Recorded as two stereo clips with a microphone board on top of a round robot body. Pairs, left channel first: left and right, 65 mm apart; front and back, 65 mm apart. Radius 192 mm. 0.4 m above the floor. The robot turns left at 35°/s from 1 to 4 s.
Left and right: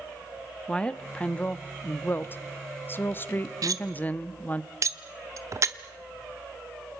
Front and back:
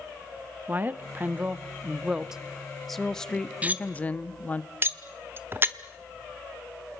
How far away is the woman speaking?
About 1.2 m.